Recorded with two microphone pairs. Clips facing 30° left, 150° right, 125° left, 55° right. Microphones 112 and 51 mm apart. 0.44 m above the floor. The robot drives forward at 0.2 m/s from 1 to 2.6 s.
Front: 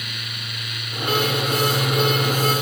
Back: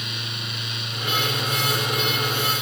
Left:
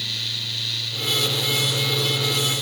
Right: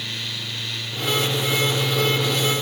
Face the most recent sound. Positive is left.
No sound to turn to.